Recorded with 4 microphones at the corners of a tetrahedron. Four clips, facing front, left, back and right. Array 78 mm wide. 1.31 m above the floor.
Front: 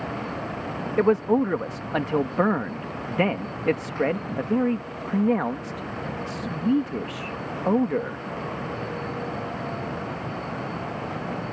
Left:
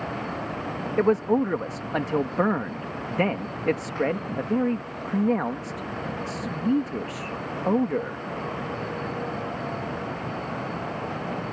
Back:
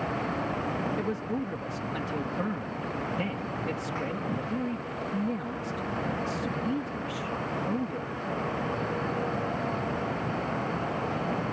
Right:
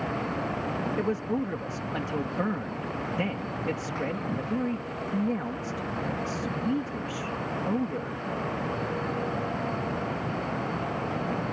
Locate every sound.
1.0 s a man speaking: 35° left